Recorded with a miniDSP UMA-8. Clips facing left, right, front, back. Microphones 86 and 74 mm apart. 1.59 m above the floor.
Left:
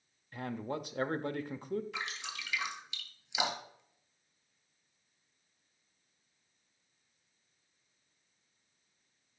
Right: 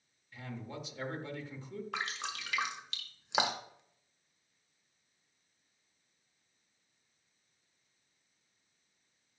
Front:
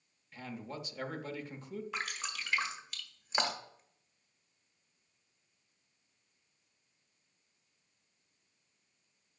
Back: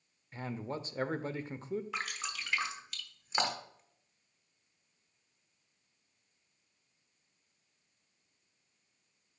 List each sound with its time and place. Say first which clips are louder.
0.3 s a man speaking: left 6 dB, back 4 dB; 125° left, 0.6 m
1.9 s dripping: right 3 dB, even; 90° right, 1.3 m